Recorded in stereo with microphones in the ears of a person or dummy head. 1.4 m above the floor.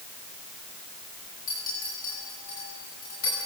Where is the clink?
45° left (ahead or behind), 8.5 m.